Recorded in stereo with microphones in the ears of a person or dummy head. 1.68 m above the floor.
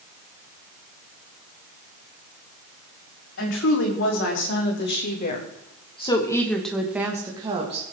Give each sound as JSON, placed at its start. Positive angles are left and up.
{"t": 3.4, "sound": "a woman speaking", "side_deg": 70, "distance_m": 5.0}